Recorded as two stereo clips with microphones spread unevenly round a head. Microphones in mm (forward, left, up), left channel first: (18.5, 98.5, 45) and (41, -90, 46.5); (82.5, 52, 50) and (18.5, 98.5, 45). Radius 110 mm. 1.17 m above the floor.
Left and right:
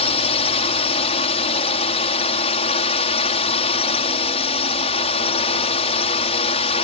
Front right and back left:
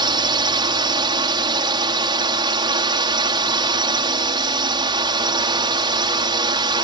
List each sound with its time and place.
0.0 s a drone: 155° left